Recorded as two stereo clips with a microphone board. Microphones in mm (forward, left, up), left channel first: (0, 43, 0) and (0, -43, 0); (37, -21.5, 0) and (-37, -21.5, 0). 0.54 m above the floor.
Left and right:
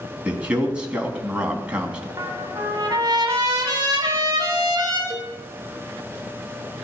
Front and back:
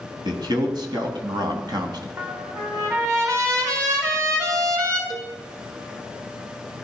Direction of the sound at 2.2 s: 135° right.